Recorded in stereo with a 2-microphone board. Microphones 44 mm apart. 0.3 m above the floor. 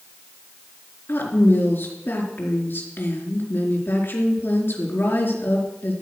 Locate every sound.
1.1 s a woman speaking: 55° left (ahead or behind), 4 m